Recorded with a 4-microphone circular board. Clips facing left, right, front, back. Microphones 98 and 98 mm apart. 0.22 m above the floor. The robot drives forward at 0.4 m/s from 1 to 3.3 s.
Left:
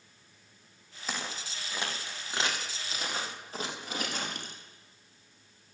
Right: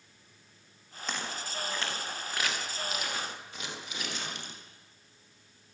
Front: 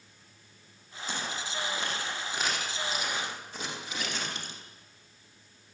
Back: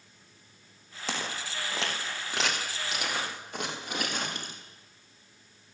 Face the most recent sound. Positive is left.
turn(degrees=135)